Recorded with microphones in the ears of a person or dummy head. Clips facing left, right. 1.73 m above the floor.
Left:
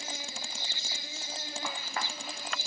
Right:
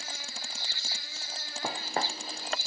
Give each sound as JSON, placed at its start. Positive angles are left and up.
{"t": 0.0, "sound": "an insect", "side_deg": 20}
{"t": 1.6, "sound": "footsteps", "side_deg": -40}